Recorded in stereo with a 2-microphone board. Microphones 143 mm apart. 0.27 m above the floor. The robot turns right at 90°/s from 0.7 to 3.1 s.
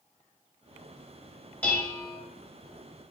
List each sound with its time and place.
1.6 s dishes clattering: 5° left (ahead or behind), 0.8 m; by 2.2 s 20° left (ahead or behind), 0.8 m